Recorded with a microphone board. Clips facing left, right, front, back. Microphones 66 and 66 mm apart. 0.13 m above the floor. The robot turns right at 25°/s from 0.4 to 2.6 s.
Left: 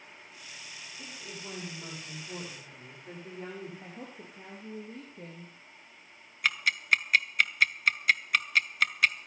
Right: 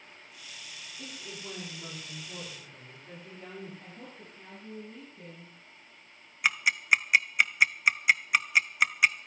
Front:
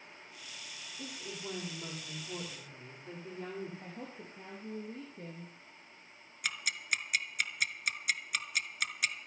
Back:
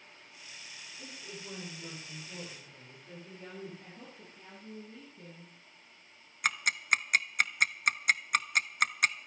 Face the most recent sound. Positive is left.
turn(degrees=-160)